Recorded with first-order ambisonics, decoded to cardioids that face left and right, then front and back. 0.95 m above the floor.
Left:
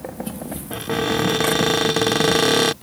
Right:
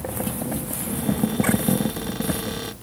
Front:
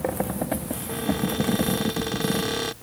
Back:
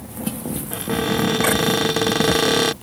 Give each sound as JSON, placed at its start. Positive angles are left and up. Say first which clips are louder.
{"t": 0.7, "sound": "a cupboard door", "louder": "left 12 dB, back 7 dB", "azimuth_deg": 125}